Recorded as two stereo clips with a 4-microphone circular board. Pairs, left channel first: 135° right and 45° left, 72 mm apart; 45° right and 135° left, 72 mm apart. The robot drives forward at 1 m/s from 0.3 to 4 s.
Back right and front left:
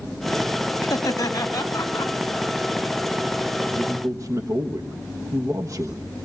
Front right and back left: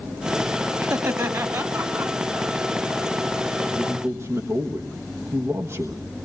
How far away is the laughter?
About 1.9 m.